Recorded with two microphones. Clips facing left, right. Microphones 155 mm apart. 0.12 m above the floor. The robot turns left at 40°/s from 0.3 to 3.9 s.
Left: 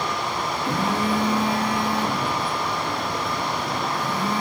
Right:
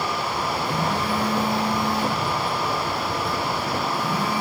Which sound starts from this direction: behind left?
A phone buzzing, at 0.7 s.